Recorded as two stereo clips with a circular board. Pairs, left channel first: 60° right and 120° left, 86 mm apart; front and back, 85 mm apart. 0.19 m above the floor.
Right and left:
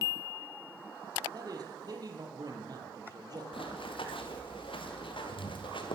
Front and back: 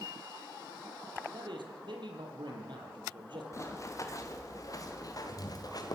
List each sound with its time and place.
1.3 s a man speaking: 160° left, 6 m
3.5 s running footsteps: 55° right, 4.5 m; by 6.0 s 40° right, 5 m